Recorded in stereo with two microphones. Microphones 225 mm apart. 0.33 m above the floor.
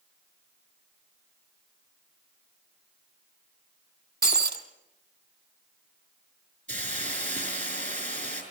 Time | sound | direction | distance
4.2 | breaking glass | 45° right (ahead or behind) | 1.8 m
6.7 | a hiss | 35° right (ahead or behind) | 5.5 m